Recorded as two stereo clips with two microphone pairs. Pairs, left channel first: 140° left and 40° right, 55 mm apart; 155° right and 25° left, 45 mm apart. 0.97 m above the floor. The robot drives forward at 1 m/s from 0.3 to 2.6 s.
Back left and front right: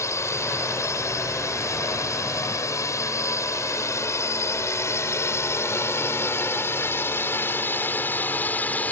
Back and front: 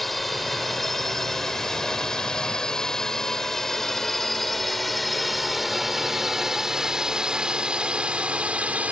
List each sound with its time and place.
0.0 s a drone: 115° left; by 8.9 s 80° left